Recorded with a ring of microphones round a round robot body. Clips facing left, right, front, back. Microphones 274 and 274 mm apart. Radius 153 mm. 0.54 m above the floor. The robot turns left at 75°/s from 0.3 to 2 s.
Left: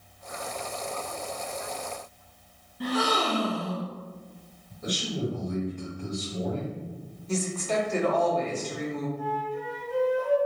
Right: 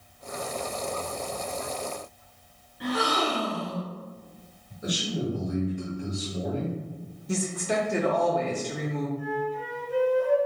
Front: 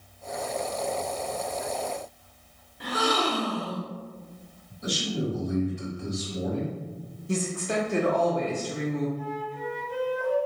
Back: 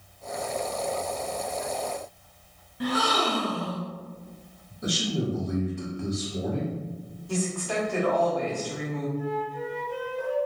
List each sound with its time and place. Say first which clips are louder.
2.8 s a gasp: even, back 1 dB; 155° left, 1.3 m
4.8 s a man speaking: right 1 dB, back 1 dB; 170° right, 1.4 m
7.3 s a woman speaking: even, front 1 dB; 30° right, 0.7 m
9.2 s a flute: right 2 dB, back 3 dB; 125° left, 1.3 m